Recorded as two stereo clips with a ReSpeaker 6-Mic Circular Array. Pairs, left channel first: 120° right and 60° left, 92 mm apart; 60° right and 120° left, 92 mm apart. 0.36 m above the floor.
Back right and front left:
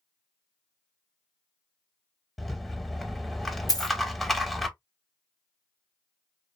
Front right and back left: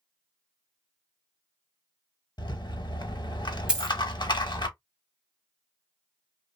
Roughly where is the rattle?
Ahead right.